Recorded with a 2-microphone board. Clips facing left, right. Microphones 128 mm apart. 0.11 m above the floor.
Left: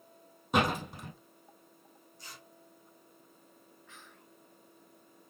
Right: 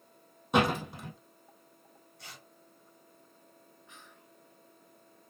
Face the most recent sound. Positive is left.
turn(degrees=-20)  # may be behind; listen again after turning